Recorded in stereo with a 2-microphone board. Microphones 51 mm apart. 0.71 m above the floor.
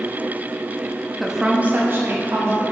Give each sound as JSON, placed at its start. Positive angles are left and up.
{"t": 1.2, "sound": "a woman speaking", "side_deg": -5, "distance_m": 0.8}